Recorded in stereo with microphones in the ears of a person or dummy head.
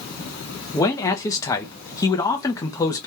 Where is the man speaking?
15° left (ahead or behind), 0.6 m.